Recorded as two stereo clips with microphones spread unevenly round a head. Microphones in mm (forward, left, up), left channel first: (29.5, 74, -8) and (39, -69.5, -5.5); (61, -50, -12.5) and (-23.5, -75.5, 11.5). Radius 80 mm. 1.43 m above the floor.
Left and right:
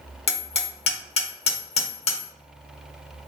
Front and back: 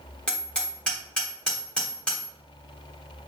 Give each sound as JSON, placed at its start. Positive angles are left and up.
{"t": 0.3, "sound": "hammering", "azimuth_deg": 110, "distance_m": 1.3}